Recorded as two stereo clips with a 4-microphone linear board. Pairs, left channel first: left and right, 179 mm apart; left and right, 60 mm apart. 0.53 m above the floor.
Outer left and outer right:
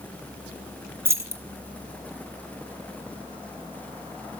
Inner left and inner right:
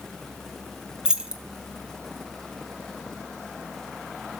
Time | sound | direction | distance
1.1 | keys jangling | 15° right (ahead or behind) | 0.6 m